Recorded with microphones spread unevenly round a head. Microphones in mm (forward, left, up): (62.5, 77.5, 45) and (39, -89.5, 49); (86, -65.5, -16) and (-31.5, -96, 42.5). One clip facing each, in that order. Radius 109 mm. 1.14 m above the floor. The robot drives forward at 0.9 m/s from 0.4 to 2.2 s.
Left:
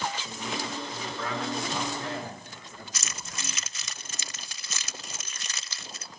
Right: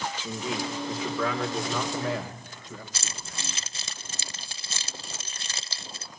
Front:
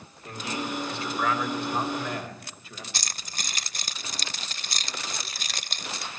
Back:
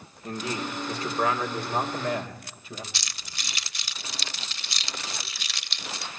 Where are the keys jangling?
35° right, 0.5 m.